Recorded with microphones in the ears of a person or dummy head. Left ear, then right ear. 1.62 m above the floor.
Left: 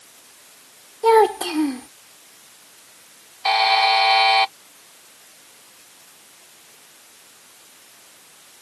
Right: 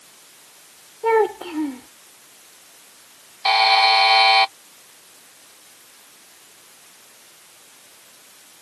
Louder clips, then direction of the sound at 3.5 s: Right 2 dB; 5° right (ahead or behind).